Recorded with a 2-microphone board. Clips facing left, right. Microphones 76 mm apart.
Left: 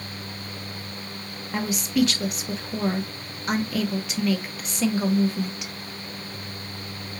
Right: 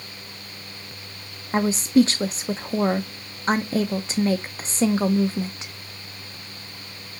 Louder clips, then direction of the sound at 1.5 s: Right 6 dB; 35° right (ahead or behind).